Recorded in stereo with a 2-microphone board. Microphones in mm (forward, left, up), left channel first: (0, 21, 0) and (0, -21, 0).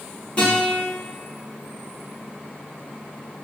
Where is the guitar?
30° left (ahead or behind), 1.7 m.